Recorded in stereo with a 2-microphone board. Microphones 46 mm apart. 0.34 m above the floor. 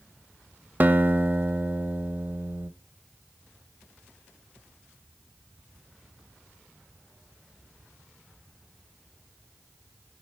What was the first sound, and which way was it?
A guitar, 40° right (ahead or behind).